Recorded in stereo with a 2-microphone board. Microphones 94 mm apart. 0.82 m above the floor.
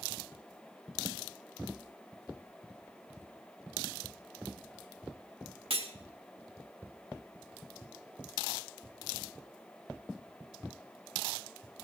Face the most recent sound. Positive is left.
turn(degrees=-75)  # may be behind; listen again after turning